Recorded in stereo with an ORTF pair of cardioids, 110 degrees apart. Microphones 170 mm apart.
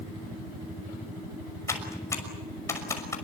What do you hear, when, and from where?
1.7 s typing on a keyboard: 15° left, 6 m